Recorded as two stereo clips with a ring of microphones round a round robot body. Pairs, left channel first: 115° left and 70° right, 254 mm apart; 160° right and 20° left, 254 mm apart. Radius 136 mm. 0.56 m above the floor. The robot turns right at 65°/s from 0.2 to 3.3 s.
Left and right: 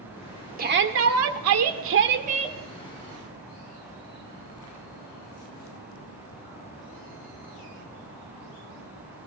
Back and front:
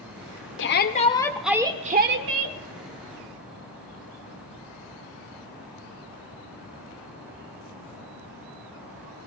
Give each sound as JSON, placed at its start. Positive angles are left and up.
{"t": 0.6, "sound": "a shout", "azimuth_deg": -120, "distance_m": 1.5}